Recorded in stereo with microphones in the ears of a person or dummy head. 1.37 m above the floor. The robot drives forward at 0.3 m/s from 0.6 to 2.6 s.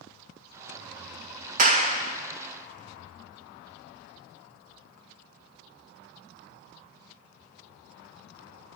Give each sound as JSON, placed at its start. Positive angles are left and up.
{"t": 1.6, "sound": "a clap", "side_deg": -50, "distance_m": 0.9}